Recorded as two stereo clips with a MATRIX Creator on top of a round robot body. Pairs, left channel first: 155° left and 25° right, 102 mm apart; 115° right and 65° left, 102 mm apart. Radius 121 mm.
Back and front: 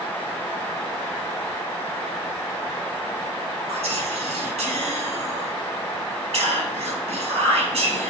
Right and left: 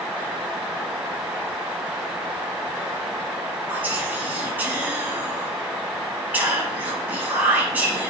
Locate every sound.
3.7 s whispering: 5° right, 4 m